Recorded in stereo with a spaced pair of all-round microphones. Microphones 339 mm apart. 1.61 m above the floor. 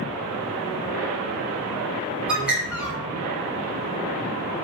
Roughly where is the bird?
Centre.